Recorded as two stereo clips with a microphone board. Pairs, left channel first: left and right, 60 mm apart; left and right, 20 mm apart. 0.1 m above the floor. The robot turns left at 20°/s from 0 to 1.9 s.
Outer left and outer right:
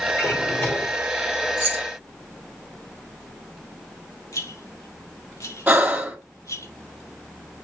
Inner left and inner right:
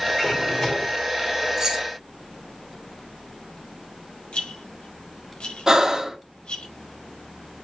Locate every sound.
0.2 s a drawer: 35° left (ahead or behind), 2.5 m; by 1.0 s 20° left (ahead or behind), 2.5 m
1.6 s keys jangling: 25° right (ahead or behind), 3 m; by 1.9 s 30° right (ahead or behind), 3 m
4.3 s a rattle: 65° left (ahead or behind), 4 m
5.7 s breathing: 25° right (ahead or behind), 2.5 m